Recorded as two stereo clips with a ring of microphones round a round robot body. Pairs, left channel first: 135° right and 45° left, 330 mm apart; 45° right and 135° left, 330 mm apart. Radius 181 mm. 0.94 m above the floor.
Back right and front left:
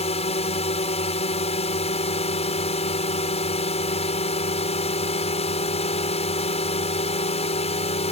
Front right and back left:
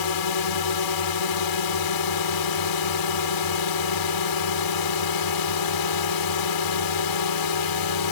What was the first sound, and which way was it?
A drone, 65° right.